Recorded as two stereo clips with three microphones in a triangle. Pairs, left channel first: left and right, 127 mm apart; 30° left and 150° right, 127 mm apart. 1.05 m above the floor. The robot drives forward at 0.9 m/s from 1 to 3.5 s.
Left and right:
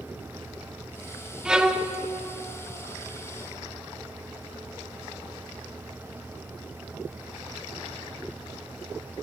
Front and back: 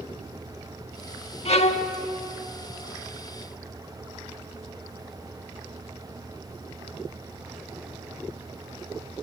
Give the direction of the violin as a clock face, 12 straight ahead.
12 o'clock.